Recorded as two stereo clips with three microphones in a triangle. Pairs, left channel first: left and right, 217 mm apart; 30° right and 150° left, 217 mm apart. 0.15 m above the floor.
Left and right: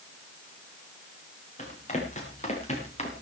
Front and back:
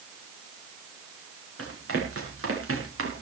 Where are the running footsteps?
145° left, 6 m; by 3.2 s 150° left, 4 m.